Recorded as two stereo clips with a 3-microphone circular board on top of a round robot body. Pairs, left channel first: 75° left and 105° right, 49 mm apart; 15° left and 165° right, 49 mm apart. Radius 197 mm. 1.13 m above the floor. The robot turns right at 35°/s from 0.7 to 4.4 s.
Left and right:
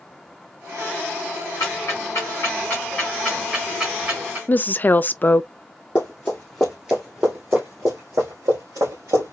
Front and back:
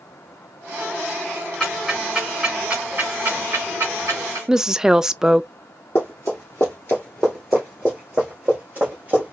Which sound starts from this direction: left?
Ticking, at 1.6 s.